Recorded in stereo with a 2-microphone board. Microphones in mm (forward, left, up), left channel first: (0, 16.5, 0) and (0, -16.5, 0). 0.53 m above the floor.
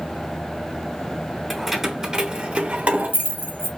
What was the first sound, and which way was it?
Keys jangling, centre (ahead or behind).